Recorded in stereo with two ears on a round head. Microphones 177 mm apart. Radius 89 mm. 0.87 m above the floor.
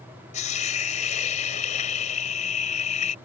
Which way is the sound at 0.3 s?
35° left (ahead or behind).